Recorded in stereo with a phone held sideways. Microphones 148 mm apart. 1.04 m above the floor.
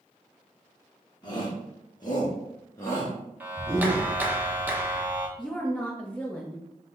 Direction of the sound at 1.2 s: 30° left (ahead or behind).